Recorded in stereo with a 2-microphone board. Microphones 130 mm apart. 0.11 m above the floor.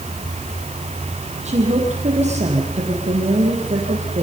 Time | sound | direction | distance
1.4 | a woman speaking | 60° right (ahead or behind) | 4.5 m